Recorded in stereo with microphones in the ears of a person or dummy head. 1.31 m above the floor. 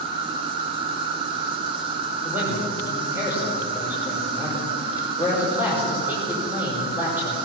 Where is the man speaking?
5° right (ahead or behind), 5.5 m.